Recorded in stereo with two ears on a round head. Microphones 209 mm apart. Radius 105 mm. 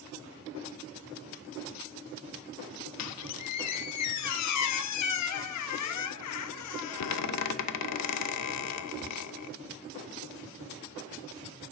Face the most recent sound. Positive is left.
turn(degrees=75)  # may be behind; listen again after turning